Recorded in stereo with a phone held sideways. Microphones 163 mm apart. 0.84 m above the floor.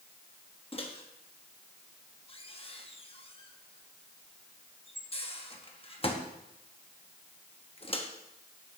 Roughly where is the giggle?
I don't hear a giggle.